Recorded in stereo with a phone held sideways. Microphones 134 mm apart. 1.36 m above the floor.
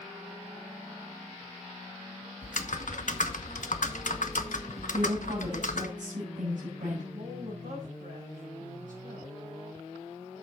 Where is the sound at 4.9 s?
80° right, 7 m.